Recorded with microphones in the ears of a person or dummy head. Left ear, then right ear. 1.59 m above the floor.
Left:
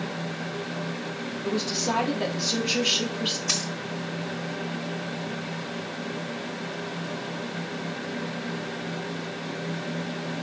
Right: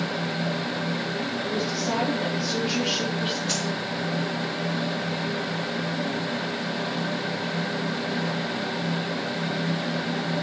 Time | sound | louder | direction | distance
1.4 | a woman speaking | left 3 dB | 45° left (ahead or behind) | 3.5 m
3.5 | a dropped coin | left 1 dB | 45° left (ahead or behind) | 4.5 m